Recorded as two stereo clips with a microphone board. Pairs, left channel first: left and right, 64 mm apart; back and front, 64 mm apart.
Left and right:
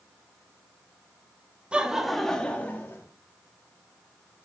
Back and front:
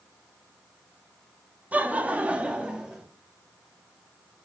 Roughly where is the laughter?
Ahead right.